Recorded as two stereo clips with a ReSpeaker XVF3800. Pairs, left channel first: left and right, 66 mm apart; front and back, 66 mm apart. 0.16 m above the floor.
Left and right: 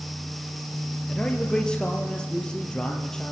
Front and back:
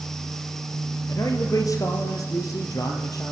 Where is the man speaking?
15° left, 3.5 m.